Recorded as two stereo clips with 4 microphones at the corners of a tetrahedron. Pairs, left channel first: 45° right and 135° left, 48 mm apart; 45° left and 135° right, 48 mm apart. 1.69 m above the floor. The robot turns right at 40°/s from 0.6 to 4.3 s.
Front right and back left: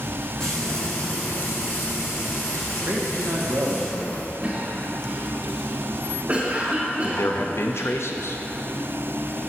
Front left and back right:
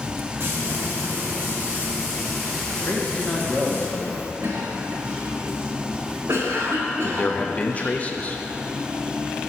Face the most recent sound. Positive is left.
turn(degrees=-20)